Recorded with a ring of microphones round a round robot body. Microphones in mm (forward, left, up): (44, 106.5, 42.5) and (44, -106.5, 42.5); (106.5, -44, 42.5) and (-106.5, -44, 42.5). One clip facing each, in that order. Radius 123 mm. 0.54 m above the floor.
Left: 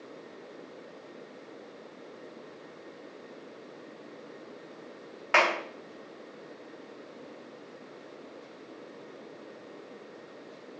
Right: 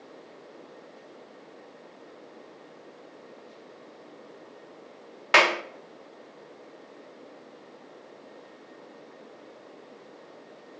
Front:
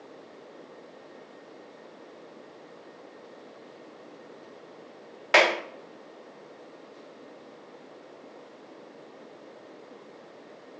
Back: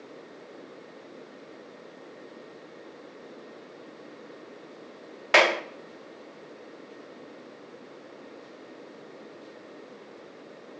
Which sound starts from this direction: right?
A clap, at 5.3 s.